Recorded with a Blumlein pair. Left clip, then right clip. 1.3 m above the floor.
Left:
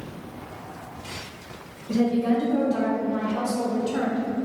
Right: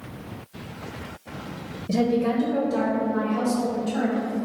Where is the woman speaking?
30° right, 0.7 m; by 4.2 s 30° left, 1.4 m.